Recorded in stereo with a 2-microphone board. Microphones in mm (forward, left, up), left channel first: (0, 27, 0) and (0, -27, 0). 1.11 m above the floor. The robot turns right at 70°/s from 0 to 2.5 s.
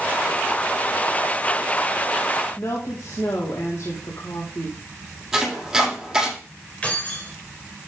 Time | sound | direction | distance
2.6 | a woman speaking | 75° left (ahead or behind) | 2.5 m
5.3 | chopping | 5° right (ahead or behind) | 6.5 m
6.8 | keys jangling | 25° left (ahead or behind) | 4 m